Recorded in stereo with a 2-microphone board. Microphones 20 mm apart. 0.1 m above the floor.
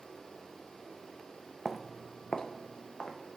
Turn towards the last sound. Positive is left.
turn(degrees=55)  # may be behind; listen again after turning